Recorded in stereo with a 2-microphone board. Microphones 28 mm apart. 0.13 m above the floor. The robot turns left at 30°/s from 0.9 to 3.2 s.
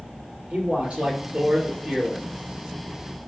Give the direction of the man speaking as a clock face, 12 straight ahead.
4 o'clock.